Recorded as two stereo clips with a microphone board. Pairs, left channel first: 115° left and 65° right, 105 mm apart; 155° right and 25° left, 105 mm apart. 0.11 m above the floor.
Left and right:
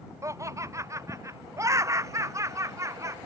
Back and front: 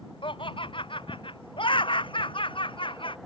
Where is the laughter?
125° right.